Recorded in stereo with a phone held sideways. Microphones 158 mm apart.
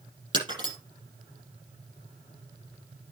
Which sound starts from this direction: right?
Breaking glass, at 0.3 s.